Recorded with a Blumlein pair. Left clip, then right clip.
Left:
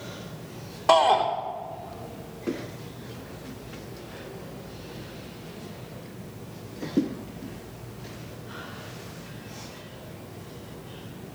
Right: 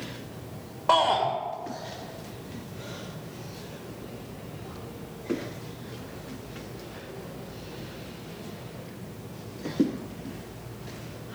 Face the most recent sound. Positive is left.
turn(degrees=40)